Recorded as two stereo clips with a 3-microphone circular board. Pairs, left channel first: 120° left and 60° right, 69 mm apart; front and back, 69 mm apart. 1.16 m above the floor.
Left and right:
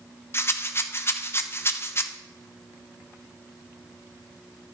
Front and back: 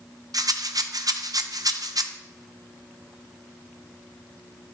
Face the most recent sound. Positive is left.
turn(degrees=170)